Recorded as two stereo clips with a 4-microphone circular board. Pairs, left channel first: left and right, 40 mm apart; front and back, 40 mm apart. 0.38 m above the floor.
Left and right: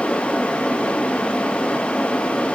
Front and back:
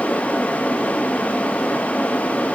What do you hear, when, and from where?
Only background noise.